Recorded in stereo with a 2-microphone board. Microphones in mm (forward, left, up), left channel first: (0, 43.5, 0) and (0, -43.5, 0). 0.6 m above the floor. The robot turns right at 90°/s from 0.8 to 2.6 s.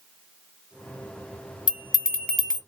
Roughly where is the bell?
Behind left.